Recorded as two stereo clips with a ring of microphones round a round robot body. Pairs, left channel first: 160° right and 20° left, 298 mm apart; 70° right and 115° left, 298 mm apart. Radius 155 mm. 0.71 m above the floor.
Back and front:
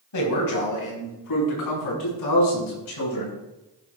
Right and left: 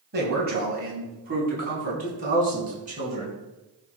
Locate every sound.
0.1 s a man speaking: 170° left, 4.5 m; by 3.4 s straight behind, 7.5 m